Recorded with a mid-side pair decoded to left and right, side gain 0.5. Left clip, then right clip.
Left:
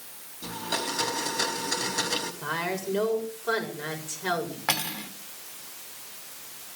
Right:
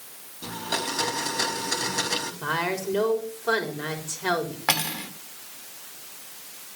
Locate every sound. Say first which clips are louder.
0.4 s a blender: right 2 dB; 15° right, 5 m
2.4 s a woman speaking: right 3 dB; 25° right, 5.5 m
4.7 s cutlery clinking: right 4 dB; 25° right, 1.8 m